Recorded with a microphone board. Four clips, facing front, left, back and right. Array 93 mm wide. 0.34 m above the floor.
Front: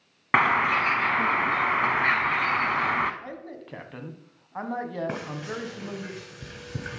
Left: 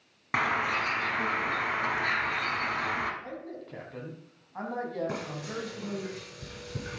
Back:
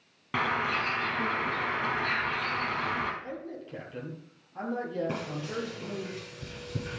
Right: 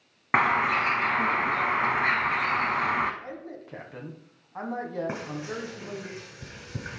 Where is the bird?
30° right, 1.0 m.